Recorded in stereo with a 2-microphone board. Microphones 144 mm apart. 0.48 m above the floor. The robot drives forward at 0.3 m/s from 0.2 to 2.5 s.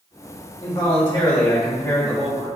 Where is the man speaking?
30° left (ahead or behind), 1.0 m; by 2.5 s 20° left (ahead or behind), 1.4 m.